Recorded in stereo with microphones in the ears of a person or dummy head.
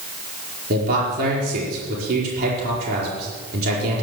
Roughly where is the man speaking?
Right.